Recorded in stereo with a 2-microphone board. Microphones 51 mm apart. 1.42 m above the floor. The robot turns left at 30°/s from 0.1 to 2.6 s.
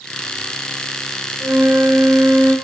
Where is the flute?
90° right, 3 m; by 2.5 s 125° right, 3 m.